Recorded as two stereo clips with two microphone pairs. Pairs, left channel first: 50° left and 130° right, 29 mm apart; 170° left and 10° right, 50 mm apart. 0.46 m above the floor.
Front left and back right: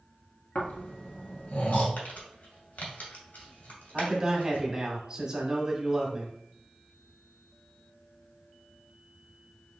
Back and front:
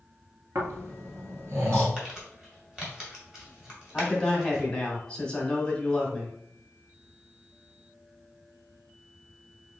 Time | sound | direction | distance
0.6 | snoring | 15° left | 1.5 m
2.0 | crumpling | 55° left | 1.9 m
3.9 | a man speaking | 140° right | 1.4 m